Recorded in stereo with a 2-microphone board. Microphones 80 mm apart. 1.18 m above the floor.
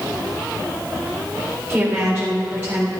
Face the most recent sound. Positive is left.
turn(degrees=-15)  # may be behind; listen again after turning